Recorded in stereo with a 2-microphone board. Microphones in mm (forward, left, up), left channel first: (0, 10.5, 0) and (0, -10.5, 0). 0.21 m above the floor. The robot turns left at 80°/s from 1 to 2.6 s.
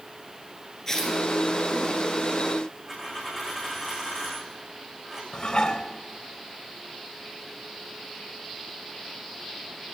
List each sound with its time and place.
0.9 s tearing paper: 25° left (ahead or behind), 3 m; by 1.2 s 40° left (ahead or behind), 3 m
2.9 s a dropped coin: 20° right (ahead or behind), 5.5 m
5.3 s dishes clattering: 30° left (ahead or behind), 1.0 m